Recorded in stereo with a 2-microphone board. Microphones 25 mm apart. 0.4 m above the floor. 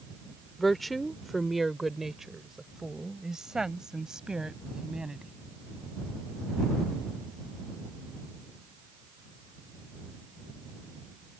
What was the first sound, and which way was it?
A woman speaking, 10° left (ahead or behind).